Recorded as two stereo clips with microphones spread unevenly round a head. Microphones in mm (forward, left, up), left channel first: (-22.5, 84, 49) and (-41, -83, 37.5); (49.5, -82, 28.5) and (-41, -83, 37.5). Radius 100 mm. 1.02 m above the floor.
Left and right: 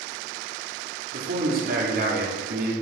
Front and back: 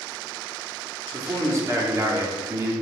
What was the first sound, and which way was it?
A man speaking, 125° right.